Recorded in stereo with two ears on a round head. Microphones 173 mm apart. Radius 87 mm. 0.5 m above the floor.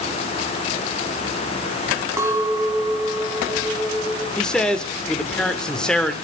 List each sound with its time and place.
2.2 s a clink: 15° right (ahead or behind), 2.5 m
4.4 s a man speaking: 5° left (ahead or behind), 1.8 m